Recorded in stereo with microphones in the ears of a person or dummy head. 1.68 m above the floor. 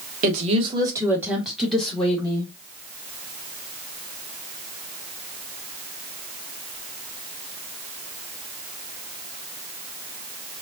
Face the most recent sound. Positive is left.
turn(degrees=15)  # may be behind; listen again after turning